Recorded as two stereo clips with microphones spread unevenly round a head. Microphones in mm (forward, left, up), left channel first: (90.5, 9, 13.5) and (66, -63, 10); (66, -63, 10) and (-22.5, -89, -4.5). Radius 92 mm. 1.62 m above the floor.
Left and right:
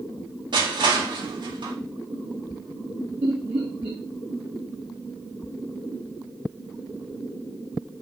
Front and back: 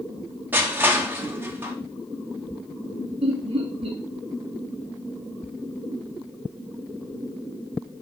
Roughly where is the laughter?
Behind.